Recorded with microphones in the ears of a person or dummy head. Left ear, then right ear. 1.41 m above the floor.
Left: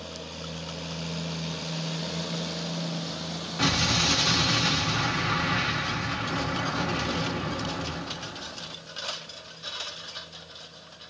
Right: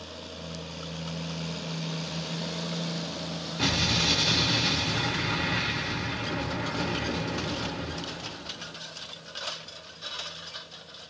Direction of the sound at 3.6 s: 25° left (ahead or behind).